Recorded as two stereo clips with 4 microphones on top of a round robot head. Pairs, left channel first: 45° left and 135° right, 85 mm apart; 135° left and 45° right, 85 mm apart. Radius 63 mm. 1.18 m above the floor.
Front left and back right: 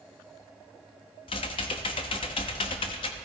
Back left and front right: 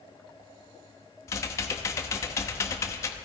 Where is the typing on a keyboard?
75° left, 0.8 m.